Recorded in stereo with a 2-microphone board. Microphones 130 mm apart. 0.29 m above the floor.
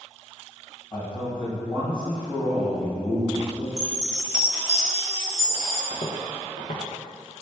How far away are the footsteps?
About 1.5 m.